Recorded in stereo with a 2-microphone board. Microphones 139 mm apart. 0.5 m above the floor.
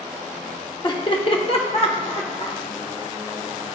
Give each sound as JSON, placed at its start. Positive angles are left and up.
{"t": 0.8, "sound": "laughter", "side_deg": 30, "distance_m": 0.8}